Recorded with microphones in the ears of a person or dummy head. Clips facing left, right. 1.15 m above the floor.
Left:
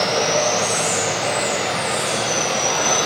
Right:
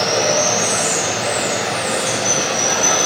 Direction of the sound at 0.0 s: 25° right (ahead or behind).